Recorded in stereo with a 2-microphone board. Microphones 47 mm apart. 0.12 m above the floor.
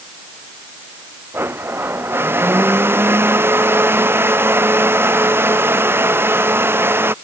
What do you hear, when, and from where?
1.3 s a blender: 50° right (ahead or behind)